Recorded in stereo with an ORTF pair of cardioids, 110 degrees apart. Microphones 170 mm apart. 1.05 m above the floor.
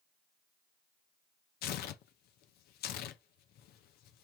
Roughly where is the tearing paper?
Left.